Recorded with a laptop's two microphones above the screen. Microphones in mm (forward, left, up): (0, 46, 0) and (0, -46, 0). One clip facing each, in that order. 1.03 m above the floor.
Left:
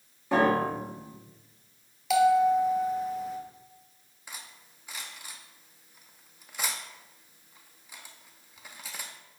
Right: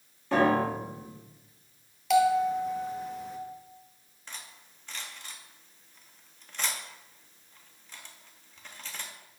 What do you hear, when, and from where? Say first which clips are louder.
0.3 s a piano: even; 10° left (ahead or behind), 2 m
2.1 s a bell: left 2 dB; 5° left (ahead or behind), 0.8 m
4.3 s cutlery clinking: left 1 dB; 10° left (ahead or behind), 0.6 m